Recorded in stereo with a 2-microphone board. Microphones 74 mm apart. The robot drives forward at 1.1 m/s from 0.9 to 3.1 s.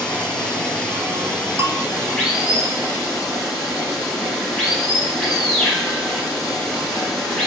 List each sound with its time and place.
0.0 s running water: 15° left (ahead or behind), 6 m; by 7.5 s 10° left (ahead or behind), 8.5 m
1.6 s a bell: 40° right (ahead or behind), 3.5 m; by 1.9 s 35° right (ahead or behind), 4 m